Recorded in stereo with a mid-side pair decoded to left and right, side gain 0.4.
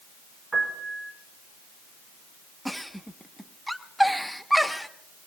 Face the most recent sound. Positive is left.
turn(degrees=0)